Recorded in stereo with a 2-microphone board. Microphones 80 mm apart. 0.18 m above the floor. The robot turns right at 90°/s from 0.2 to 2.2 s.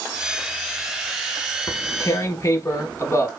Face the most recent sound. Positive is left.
turn(degrees=130)